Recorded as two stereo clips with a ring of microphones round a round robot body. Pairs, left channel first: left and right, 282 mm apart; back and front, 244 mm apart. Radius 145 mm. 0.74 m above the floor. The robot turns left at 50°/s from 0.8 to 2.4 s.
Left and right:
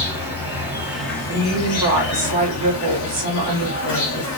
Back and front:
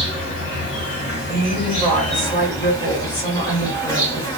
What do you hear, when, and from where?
0.0 s an insect: 175° right, 1.5 m; by 4.4 s 105° left, 1.5 m
1.3 s a woman speaking: 60° right, 1.5 m; by 4.4 s 115° right, 1.5 m